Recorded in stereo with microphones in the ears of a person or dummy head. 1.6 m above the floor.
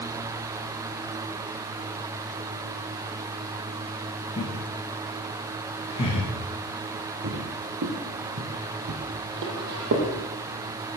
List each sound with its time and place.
4.4 s laughter: 25° left (ahead or behind), 1.9 m
7.2 s footsteps: 40° right (ahead or behind), 2 m; by 10.1 s 55° right (ahead or behind), 3.5 m